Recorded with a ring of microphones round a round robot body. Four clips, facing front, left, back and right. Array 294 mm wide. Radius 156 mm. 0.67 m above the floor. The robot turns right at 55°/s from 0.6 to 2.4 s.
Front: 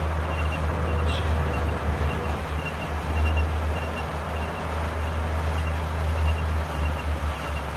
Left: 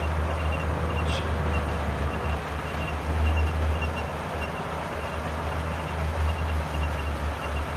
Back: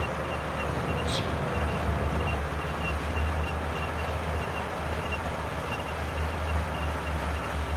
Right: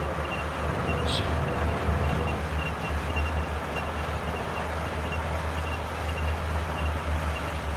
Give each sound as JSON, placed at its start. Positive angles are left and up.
{"t": 1.1, "sound": "whispering", "azimuth_deg": -165, "distance_m": 0.9}